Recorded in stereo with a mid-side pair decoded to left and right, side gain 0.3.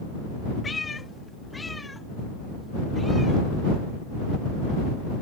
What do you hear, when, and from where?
0.6 s a cat meowing: 45° left; by 3.4 s 10° left